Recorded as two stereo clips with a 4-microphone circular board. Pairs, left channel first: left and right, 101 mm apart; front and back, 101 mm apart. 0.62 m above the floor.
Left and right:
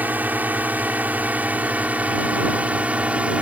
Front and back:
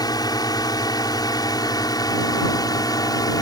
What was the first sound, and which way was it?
A drone, 25° right.